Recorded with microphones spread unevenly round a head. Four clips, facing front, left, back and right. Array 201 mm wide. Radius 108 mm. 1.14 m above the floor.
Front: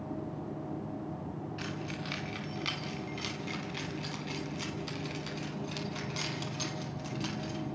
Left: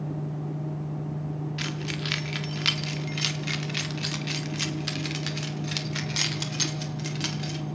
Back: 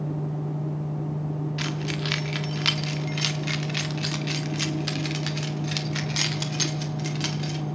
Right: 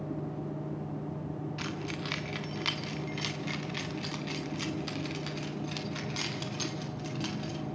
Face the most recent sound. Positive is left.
turn(degrees=125)